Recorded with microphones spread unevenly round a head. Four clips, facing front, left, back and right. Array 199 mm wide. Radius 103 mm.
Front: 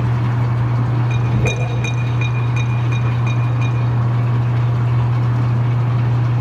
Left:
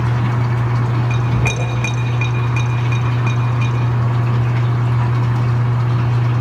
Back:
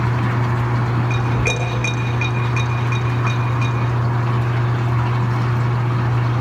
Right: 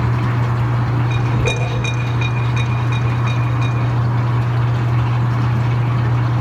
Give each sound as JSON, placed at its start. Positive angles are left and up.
{"t": 1.1, "sound": "a clink", "azimuth_deg": 35, "distance_m": 6.0}